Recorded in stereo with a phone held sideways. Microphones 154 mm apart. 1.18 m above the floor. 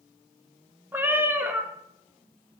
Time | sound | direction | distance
0.9 | a cat meowing | 15° right (ahead or behind) | 0.7 m